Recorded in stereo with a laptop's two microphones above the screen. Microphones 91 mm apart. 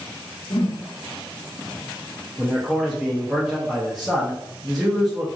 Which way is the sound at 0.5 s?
45° left (ahead or behind).